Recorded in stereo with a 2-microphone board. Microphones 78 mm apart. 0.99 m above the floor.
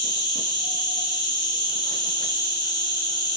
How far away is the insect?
About 1.3 m.